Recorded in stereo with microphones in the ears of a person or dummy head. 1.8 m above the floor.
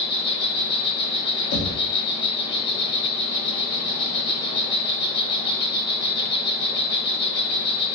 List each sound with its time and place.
0.0 s an insect: 30° left (ahead or behind), 1.1 m
1.5 s knocking: 55° left (ahead or behind), 0.8 m